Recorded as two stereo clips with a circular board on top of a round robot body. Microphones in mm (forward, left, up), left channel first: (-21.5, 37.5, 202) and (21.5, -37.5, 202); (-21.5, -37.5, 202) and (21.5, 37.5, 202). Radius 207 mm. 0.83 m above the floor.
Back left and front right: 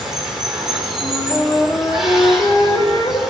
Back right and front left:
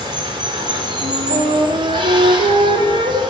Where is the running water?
25° left, 1.5 m.